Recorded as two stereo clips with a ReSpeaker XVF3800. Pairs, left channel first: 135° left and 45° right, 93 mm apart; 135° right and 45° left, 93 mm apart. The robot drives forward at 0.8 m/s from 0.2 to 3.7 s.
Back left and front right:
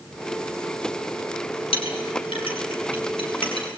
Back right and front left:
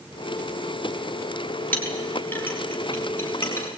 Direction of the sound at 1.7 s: 150° left.